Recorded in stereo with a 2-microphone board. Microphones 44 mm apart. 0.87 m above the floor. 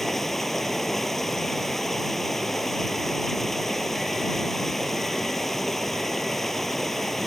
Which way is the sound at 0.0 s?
5° left (ahead or behind).